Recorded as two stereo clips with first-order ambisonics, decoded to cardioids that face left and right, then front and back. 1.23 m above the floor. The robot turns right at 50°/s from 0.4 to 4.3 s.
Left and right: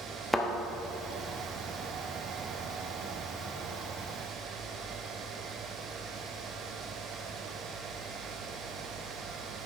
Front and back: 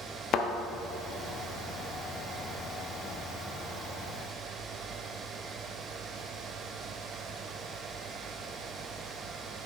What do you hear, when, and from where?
0.3 s a thud: straight ahead, 0.7 m; by 0.5 s 5° left, 0.7 m